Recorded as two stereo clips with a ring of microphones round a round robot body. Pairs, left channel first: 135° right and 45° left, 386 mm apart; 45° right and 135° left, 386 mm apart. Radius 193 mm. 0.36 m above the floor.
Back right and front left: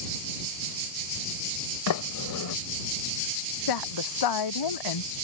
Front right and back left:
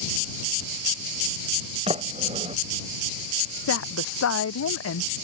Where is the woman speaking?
100° right.